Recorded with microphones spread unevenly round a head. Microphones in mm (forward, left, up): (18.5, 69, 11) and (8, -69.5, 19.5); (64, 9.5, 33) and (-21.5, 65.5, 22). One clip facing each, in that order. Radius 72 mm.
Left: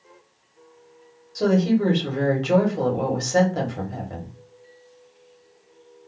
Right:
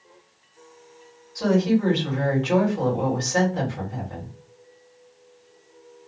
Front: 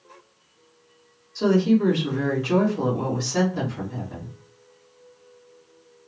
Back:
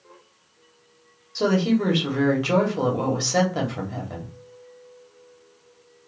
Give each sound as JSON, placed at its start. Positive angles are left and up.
{"t": 1.4, "sound": "a woman speaking", "azimuth_deg": 130, "distance_m": 1.5}